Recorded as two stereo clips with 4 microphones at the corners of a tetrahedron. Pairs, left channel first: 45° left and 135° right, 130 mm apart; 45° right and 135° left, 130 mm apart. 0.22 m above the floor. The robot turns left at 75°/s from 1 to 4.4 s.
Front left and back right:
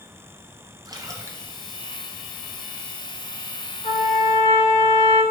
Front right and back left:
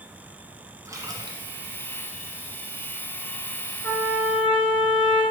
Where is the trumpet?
30° left, 1.9 m; by 5.2 s 10° right, 1.9 m.